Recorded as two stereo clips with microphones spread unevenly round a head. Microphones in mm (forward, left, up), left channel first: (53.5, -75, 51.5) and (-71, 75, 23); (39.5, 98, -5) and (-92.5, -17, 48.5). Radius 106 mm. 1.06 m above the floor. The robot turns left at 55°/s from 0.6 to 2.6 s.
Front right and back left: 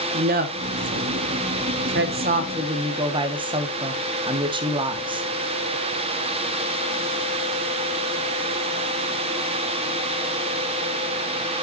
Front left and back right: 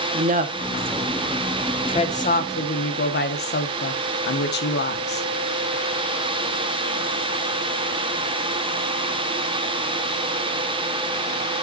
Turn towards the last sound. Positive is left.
turn(degrees=65)